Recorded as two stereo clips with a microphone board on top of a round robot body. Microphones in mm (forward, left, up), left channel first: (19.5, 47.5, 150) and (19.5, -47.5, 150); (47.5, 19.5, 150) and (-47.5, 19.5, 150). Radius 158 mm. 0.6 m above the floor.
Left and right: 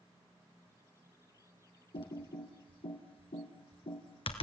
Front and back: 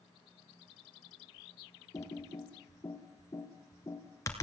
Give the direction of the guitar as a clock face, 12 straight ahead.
No guitar in this recording.